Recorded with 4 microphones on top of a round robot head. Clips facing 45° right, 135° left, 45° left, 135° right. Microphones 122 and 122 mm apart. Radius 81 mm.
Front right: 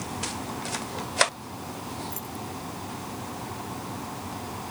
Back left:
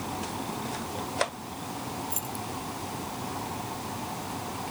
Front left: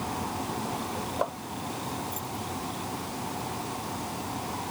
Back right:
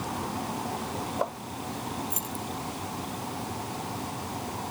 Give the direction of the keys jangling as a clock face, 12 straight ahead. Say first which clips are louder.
Back left 1 dB, even; 5 o'clock.